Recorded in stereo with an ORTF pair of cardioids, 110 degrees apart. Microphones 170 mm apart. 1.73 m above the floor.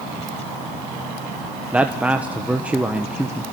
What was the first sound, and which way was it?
A man speaking, 10° right.